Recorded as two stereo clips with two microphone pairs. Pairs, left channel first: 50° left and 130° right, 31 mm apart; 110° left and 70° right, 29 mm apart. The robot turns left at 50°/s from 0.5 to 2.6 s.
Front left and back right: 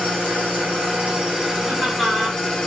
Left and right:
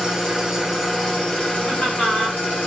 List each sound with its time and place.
0.0 s an engine running: 150° right, 1.8 m; by 2.7 s 105° left, 1.8 m
1.7 s laughter: 155° left, 1.9 m; by 2.4 s 115° left, 1.9 m